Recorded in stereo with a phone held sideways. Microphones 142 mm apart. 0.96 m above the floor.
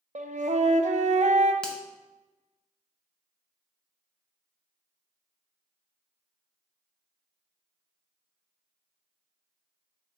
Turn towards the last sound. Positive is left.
turn(degrees=5)  # may be behind; listen again after turning